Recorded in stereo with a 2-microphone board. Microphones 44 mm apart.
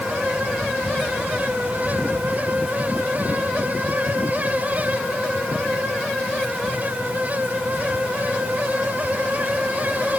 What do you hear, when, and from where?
Only background noise.